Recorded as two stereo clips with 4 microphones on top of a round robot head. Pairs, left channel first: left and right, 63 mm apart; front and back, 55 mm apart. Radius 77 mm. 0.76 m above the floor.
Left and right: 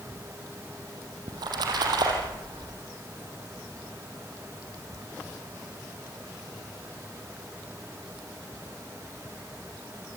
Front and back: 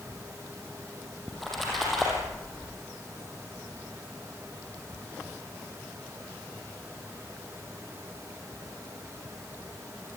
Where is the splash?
85° right, 5.5 m.